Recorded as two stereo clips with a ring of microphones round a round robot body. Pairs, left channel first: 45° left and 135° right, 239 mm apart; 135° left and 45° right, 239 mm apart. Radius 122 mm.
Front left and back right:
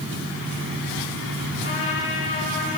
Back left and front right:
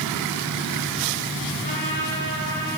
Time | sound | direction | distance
1.6 | a trumpet | 80° left | 9 m